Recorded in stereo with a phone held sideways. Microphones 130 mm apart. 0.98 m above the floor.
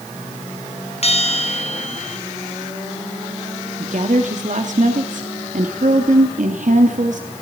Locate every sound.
1.0 s a bell: 50° left (ahead or behind), 2.5 m
3.8 s a woman speaking: 65° right (ahead or behind), 2.5 m